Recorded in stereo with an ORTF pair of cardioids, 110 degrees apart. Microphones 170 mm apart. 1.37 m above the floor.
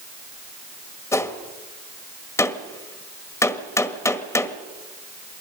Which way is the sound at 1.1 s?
15° left.